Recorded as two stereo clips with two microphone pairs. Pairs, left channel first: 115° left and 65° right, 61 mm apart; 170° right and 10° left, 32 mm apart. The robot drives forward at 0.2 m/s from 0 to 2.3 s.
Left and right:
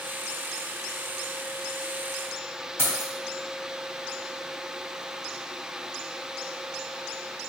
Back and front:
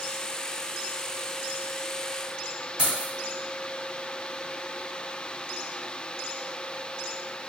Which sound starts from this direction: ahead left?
Keys jangling, at 2.8 s.